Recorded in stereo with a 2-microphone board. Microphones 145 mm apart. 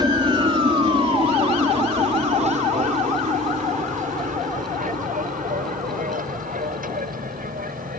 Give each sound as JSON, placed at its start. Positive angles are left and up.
{"t": 0.0, "sound": "an aircraft", "side_deg": -30}